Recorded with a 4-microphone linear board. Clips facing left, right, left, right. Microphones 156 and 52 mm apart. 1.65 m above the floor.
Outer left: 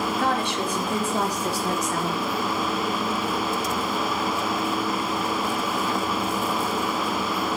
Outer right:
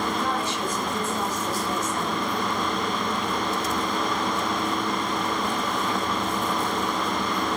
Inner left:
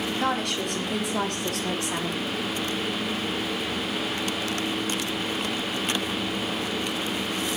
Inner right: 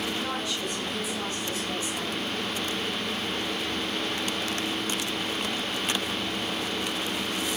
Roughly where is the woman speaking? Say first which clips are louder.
Outer left 2 dB, inner left 5 dB; left.